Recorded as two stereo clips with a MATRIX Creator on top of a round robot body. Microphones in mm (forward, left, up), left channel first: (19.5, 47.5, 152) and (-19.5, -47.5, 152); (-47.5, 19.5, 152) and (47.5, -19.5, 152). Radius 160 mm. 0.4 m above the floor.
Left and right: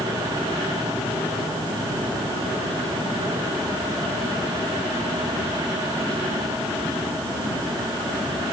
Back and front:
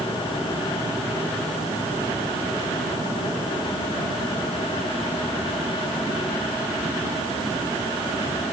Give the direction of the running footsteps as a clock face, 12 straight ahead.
No running footsteps in this recording.